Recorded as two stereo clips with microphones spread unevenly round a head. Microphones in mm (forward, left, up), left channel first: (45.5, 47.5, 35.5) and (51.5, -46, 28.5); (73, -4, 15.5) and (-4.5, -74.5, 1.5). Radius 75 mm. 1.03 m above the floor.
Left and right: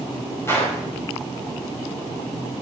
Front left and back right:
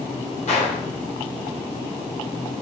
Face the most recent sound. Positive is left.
turn(degrees=30)